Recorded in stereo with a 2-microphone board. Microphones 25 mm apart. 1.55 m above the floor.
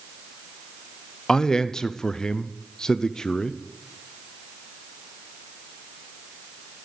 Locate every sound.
1.3 s a man speaking: 25° left (ahead or behind), 0.7 m